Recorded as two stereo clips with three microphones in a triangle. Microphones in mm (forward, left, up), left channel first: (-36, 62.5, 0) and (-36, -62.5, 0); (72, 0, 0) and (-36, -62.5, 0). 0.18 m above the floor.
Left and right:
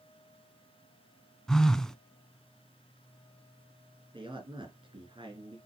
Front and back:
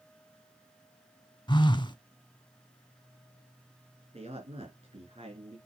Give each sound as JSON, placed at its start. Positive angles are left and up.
{"t": 1.5, "sound": "a phone buzzing", "azimuth_deg": 5, "distance_m": 0.6}
{"t": 4.1, "sound": "a man speaking", "azimuth_deg": -130, "distance_m": 2.5}